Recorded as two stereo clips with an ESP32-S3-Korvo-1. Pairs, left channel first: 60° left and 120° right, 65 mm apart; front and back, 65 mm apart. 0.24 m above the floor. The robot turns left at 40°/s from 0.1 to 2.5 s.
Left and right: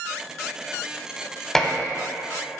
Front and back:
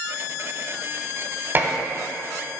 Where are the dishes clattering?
145° left, 0.8 m; by 1.7 s 135° left, 0.8 m.